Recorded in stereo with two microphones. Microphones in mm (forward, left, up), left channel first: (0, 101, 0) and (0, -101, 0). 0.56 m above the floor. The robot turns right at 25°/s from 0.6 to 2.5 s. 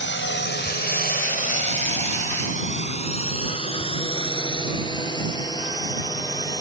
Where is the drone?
70° left (ahead or behind); by 6.6 s 20° left (ahead or behind).